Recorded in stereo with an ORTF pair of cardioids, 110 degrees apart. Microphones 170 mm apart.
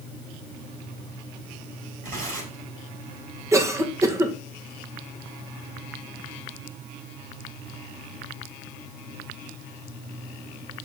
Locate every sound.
2.0 s tearing paper: 55° right, 7.5 m
3.5 s a cough: 15° right, 2 m